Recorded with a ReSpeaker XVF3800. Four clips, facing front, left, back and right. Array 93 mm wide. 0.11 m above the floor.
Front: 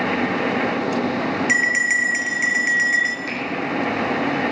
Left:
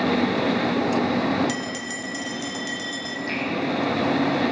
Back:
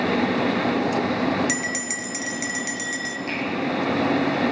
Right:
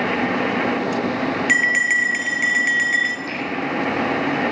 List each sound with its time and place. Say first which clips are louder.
1.5 s a bell: right 11 dB, front 8 dB; 55° right, 0.6 m
3.3 s a finger snap: even, front 1 dB; straight ahead, 6 m